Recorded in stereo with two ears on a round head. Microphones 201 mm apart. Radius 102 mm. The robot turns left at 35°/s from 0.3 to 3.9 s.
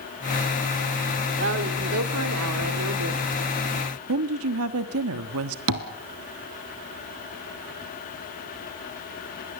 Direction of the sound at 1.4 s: 50° right.